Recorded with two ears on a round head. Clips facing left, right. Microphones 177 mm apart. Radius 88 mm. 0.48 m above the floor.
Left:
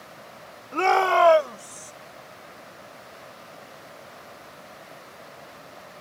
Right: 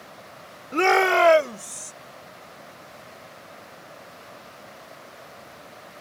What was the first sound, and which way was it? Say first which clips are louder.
A shout: right 1 dB; 20° right (ahead or behind).